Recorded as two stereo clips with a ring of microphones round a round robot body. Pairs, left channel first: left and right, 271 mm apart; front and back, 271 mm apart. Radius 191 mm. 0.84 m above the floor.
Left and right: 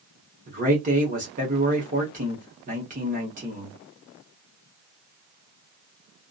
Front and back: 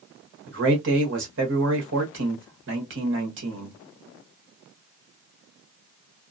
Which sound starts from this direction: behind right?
A man speaking, at 0.5 s.